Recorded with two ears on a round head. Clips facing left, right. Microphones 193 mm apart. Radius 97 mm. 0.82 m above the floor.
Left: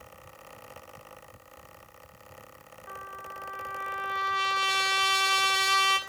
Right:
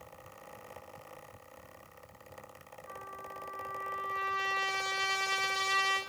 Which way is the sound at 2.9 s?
70° left (ahead or behind).